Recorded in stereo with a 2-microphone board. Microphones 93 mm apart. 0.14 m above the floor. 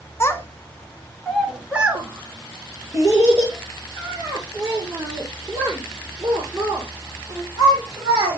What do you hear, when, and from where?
0.2 s a child speaking: 30° left (ahead or behind), 1.1 m; by 8.4 s 45° right (ahead or behind), 5.5 m